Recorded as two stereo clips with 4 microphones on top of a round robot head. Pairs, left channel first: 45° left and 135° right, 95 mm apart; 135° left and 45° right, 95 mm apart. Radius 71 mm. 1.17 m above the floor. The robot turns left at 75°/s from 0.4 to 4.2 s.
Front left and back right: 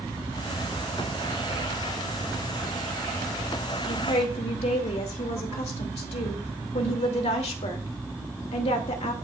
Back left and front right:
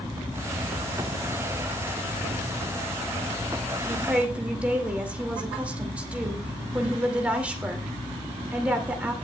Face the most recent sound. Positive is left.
turn(degrees=30)